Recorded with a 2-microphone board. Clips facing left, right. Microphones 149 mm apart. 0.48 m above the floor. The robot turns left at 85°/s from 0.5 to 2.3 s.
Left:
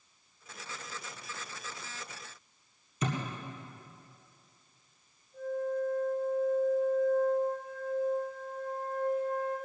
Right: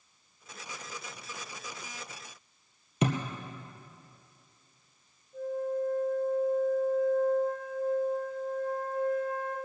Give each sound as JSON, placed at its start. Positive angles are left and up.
{"t": 3.0, "sound": "a thud", "side_deg": -75, "distance_m": 1.9}
{"t": 5.3, "sound": "a flute", "side_deg": -50, "distance_m": 5.5}